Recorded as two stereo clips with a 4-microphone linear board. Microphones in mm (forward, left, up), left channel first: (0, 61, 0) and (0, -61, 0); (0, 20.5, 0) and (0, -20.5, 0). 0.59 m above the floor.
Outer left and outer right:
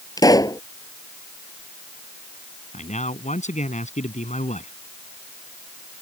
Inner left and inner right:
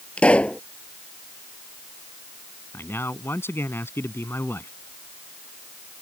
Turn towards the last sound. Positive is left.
turn(degrees=80)